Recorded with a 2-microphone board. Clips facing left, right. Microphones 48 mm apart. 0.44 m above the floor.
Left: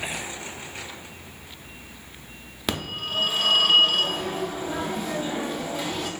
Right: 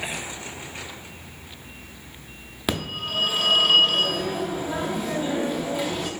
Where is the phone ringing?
5° right (ahead or behind), 0.6 m.